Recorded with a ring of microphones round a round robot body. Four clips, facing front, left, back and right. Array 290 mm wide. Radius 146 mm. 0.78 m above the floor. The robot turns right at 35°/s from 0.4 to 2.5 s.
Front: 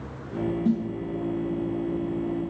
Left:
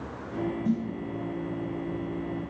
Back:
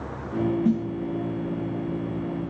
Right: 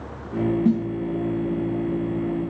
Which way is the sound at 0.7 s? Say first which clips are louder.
Right 6 dB, front 1 dB; 105° right.